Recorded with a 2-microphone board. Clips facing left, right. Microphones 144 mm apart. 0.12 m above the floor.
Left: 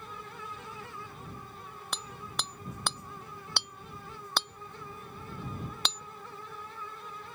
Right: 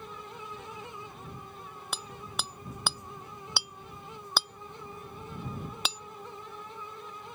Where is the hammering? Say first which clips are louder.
Even; 5° right (ahead or behind).